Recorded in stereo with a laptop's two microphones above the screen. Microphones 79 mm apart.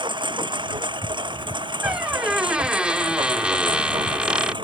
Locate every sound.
0.0 s a lawn mower: 75° right (ahead or behind)
1.8 s a squeak: 15° right (ahead or behind)